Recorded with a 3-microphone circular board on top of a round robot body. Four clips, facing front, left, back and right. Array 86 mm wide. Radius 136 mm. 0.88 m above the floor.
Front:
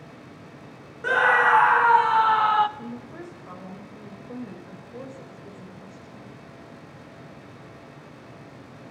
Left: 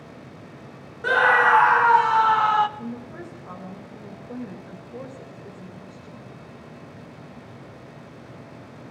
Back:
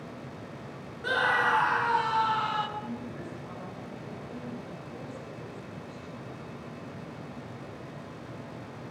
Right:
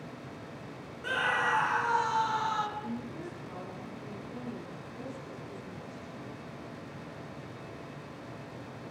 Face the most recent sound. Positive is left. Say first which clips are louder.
# left 3 dB, even
turn(degrees=60)